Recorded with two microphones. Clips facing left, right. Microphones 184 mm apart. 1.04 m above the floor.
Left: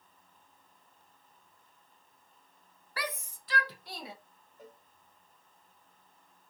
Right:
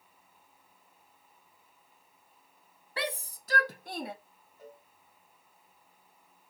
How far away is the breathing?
I don't hear breathing.